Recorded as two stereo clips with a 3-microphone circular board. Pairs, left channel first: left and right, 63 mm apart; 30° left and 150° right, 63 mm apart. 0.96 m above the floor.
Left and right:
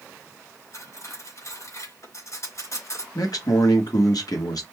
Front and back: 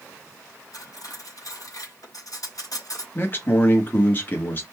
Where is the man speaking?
85° left, 1.1 m.